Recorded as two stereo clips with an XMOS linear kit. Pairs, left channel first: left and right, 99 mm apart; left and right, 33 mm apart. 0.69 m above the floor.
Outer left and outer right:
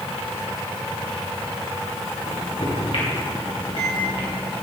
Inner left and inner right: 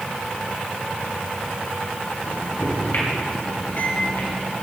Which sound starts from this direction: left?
A microwave, at 2.2 s.